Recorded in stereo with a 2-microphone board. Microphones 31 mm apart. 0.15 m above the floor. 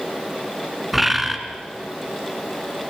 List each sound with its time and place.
0.9 s a bird: 5° right (ahead or behind), 2 m